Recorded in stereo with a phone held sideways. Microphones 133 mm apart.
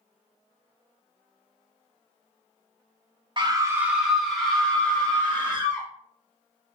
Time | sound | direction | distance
3.4 | a scream | 35° right (ahead or behind) | 1.0 m